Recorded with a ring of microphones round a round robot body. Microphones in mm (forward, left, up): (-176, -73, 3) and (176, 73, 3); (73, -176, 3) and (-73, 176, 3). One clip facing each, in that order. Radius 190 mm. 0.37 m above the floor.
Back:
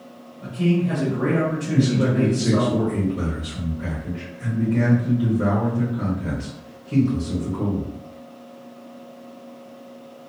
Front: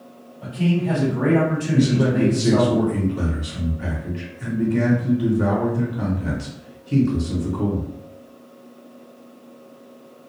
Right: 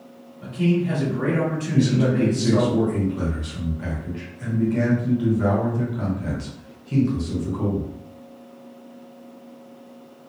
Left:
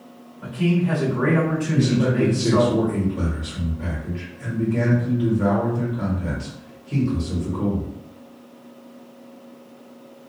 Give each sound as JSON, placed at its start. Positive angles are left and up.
{"t": 0.4, "sound": "a man speaking", "azimuth_deg": -15, "distance_m": 1.5}
{"t": 1.7, "sound": "a man speaking", "azimuth_deg": -20, "distance_m": 0.9}